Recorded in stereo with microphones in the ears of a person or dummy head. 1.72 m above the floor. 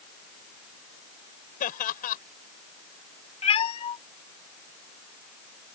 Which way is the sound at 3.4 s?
30° left (ahead or behind).